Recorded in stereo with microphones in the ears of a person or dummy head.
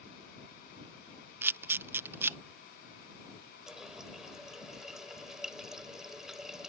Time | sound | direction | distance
1.4 | a camera shutter | 15° right (ahead or behind) | ?
3.7 | a running tap | centre (ahead or behind) | ?